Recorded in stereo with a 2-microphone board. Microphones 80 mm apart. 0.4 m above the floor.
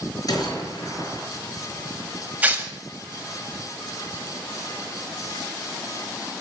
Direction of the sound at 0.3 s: 55° left (ahead or behind).